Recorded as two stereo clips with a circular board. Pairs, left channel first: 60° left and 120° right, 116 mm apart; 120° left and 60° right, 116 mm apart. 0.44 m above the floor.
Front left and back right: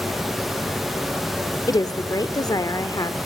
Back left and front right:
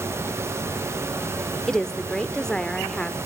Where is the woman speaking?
40° left, 0.8 m.